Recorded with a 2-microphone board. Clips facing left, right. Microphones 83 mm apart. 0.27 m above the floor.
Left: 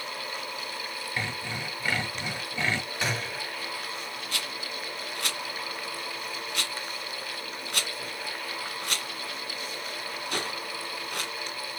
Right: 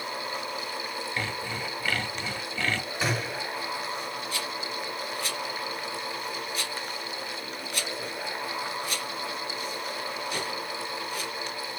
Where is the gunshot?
5° right (ahead or behind), 1.3 m.